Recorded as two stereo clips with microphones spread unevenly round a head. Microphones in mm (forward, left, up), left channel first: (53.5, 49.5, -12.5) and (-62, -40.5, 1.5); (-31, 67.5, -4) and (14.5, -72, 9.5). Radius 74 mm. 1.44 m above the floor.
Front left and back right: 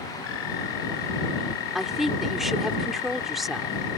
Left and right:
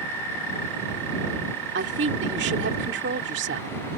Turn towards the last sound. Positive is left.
turn(degrees=-55)